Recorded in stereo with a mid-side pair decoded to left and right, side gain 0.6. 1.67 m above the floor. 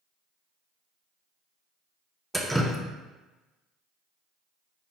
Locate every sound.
2.3 s dripping: straight ahead, 0.5 m